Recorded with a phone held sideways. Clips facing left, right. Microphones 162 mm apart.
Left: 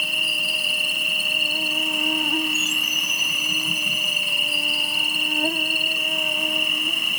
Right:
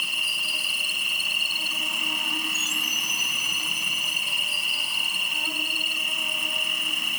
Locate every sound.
0.0 s an insect: 55° left (ahead or behind), 1.0 m